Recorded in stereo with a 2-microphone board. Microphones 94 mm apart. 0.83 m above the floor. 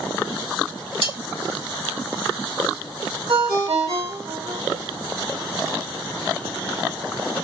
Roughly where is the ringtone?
Right.